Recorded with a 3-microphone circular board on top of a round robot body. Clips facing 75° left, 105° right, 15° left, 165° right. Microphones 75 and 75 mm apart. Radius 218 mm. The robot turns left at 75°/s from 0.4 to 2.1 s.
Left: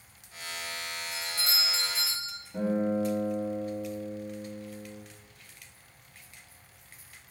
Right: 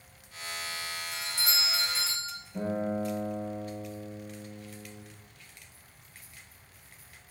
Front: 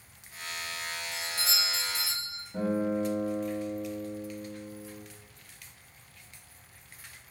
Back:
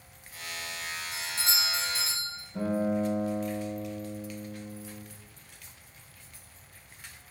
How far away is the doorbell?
About 1.4 m.